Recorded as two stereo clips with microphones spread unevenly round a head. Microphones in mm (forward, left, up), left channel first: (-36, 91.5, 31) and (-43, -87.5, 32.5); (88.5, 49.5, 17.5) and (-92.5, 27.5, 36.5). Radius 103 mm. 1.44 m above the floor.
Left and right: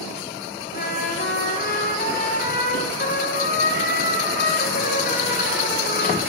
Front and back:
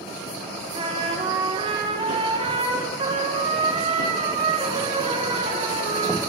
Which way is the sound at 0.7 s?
125° left.